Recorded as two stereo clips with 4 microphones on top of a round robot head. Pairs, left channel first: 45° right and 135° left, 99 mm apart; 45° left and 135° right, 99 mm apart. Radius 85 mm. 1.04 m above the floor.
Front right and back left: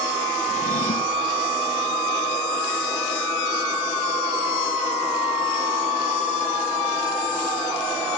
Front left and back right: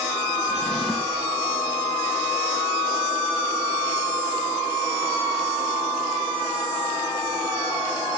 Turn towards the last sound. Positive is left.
turn(degrees=-45)